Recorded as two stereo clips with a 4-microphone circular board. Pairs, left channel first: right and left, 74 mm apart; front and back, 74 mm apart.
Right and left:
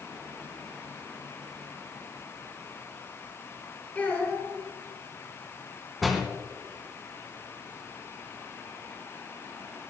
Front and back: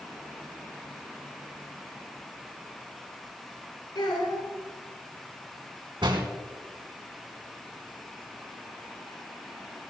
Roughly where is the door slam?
Behind.